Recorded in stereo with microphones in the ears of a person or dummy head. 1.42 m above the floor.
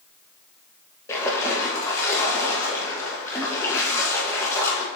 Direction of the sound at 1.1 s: 20° left (ahead or behind).